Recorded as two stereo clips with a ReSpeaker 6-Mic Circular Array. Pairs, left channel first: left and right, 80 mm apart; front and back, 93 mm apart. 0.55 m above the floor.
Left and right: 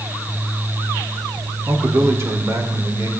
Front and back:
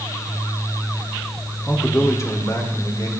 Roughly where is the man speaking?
Ahead right.